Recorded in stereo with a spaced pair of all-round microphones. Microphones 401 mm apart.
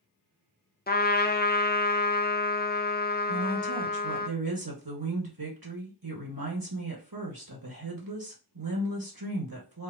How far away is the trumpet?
About 0.5 m.